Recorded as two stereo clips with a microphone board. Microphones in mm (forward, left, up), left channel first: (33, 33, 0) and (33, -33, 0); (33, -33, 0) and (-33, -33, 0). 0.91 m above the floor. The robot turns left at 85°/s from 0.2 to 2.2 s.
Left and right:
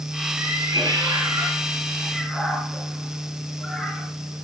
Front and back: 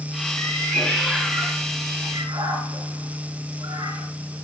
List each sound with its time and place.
0.4 s a cat meowing: 30° right, 8 m; by 4.1 s 175° left, 8 m